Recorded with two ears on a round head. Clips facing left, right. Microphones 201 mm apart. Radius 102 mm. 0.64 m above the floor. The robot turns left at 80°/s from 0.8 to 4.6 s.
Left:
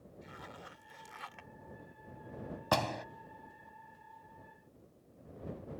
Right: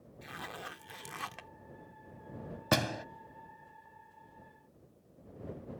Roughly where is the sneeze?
I don't hear a sneeze.